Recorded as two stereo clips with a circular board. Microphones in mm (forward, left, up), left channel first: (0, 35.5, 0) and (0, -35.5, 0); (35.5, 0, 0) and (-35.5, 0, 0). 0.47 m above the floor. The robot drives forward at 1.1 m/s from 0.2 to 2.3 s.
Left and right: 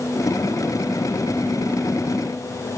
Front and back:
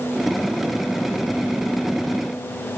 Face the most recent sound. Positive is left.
No sound to turn to.